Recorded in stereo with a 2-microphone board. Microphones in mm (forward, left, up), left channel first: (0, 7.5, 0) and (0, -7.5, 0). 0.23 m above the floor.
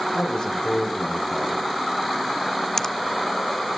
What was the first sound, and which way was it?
A man speaking, 75° left (ahead or behind).